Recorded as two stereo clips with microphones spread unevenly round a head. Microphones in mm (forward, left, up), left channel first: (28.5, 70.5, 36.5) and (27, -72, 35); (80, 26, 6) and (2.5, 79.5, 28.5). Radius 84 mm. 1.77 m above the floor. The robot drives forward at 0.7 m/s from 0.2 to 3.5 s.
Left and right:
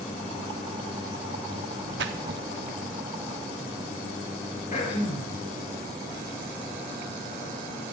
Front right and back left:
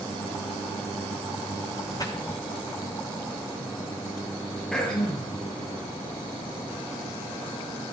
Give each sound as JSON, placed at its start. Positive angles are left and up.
{"t": 2.0, "sound": "a splash", "azimuth_deg": -110, "distance_m": 1.4}
{"t": 4.7, "sound": "throat clearing", "azimuth_deg": 50, "distance_m": 6.0}